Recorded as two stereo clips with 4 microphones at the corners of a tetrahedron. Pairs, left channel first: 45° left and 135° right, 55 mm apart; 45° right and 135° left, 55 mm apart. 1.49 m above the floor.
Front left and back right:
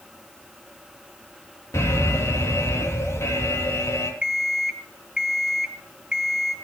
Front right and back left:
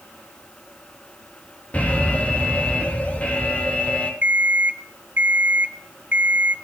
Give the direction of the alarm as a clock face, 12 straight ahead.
11 o'clock.